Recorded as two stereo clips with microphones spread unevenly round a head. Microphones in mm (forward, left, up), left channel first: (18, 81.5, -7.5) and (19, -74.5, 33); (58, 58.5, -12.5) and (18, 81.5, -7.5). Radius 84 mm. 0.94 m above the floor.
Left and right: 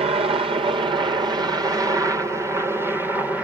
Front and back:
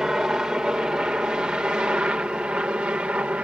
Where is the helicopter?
140° right; by 3.4 s 170° left.